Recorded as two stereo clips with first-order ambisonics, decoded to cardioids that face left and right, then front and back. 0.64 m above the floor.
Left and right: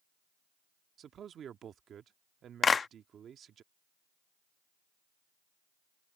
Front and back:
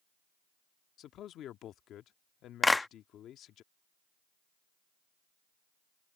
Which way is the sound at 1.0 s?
40° right.